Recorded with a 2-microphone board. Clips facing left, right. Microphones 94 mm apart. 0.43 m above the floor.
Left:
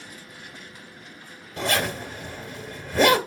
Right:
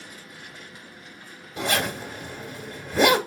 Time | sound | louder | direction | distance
1.6 | a zipper | left 1 dB | 5° right (ahead or behind) | 1.1 m